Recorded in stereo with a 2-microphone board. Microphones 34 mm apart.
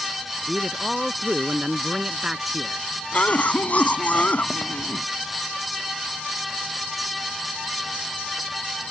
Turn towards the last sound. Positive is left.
turn(degrees=55)  # may be behind; listen again after turning